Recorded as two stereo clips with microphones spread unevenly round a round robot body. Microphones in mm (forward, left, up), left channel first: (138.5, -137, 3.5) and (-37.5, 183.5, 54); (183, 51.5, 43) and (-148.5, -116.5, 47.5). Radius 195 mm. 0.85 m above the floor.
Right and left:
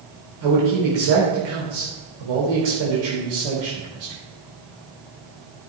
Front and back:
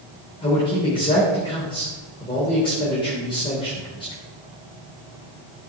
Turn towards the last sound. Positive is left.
turn(degrees=105)